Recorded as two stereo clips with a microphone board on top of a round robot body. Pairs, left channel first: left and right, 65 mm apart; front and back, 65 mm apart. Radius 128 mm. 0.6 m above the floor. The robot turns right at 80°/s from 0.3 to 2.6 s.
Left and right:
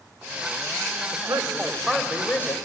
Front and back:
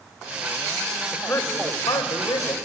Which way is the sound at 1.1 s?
70° right.